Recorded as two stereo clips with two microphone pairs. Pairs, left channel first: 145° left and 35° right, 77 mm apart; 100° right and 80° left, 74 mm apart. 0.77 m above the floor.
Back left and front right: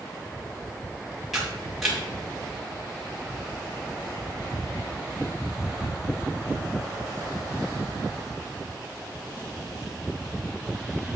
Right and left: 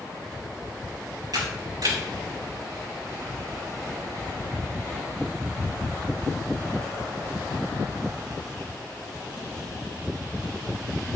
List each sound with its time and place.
1.3 s a camera shutter: 50° left, 4 m